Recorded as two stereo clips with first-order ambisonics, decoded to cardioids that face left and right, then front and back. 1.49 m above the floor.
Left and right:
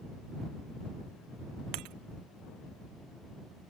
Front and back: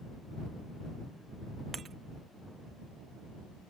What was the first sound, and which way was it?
Breaking glass, 110° right.